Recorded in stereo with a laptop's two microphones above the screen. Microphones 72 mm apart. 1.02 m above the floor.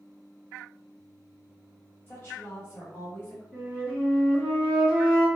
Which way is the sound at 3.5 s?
15° right (ahead or behind).